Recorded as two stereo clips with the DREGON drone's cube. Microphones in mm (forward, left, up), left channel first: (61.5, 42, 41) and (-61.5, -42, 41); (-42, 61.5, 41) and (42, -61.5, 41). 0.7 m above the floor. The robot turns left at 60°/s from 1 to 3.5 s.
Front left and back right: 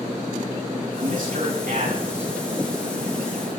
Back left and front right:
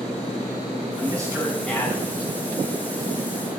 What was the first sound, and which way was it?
A man speaking, 110° right.